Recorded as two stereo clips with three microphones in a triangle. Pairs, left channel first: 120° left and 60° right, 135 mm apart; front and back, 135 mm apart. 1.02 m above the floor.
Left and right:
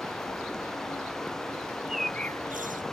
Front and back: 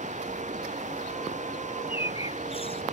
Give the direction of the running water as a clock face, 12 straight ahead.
5 o'clock.